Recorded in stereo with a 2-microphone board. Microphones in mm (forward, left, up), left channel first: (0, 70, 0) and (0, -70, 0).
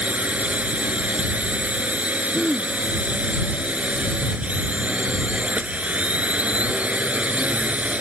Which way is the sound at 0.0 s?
10° right (ahead or behind).